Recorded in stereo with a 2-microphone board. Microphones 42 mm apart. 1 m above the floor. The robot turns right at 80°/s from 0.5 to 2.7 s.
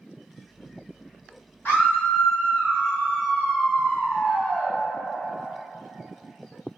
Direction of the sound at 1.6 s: 75° left.